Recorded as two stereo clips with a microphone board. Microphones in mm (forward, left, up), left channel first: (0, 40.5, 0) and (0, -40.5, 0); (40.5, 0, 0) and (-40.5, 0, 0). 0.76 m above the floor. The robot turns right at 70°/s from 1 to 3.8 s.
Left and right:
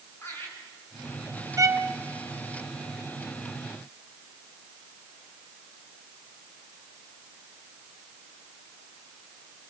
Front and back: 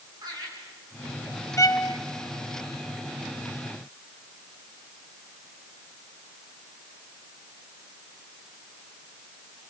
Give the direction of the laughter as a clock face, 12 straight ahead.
7 o'clock.